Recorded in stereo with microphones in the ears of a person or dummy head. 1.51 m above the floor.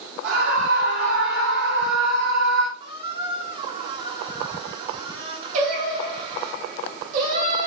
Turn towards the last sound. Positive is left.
turn(degrees=-45)  # may be behind; listen again after turning